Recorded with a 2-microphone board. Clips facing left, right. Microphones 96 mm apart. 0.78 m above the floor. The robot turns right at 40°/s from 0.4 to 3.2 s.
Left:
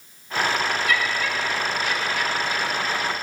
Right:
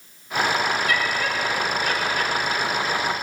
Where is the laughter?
130° right, 0.9 m; by 3.0 s 45° right, 0.9 m.